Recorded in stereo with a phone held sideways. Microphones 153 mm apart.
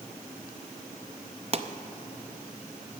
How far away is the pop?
About 0.6 m.